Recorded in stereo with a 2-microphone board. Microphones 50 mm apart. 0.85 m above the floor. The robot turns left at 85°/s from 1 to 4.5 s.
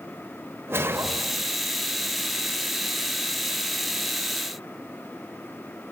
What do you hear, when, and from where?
0.7 s a whoosh: 120° right, 1.1 m; by 1.5 s 165° right, 1.1 m